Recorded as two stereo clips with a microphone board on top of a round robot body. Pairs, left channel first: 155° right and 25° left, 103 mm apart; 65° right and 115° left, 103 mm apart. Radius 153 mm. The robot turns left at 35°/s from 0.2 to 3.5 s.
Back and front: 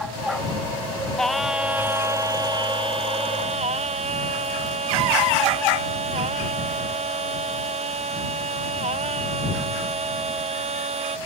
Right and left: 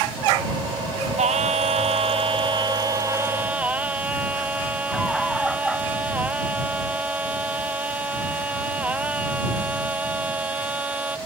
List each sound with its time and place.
1.2 s singing: 115° left; by 11.2 s 35° left